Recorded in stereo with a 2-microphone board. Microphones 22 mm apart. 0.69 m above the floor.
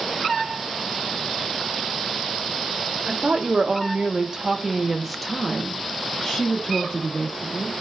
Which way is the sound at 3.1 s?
60° right (ahead or behind).